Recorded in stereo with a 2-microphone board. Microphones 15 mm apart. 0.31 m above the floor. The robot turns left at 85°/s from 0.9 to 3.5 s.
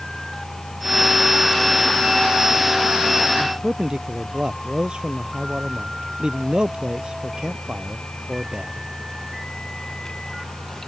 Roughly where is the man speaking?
Right.